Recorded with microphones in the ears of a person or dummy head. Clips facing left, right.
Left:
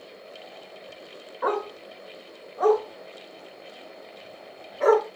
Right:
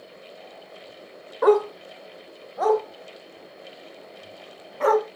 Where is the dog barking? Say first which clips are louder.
Right 10 dB; 60° right (ahead or behind), 1.5 m; by 5.1 s 80° right, 4 m.